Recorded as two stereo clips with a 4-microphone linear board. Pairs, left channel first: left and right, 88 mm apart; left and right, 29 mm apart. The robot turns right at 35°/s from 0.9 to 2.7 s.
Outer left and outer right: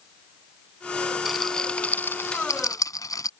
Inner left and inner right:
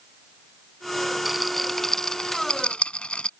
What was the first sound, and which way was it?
A rattle, 5° right (ahead or behind).